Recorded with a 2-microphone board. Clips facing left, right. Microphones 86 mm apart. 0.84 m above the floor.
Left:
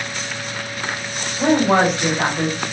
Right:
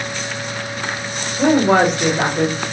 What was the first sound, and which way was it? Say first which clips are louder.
A woman speaking: right 2 dB; 70° right (ahead or behind).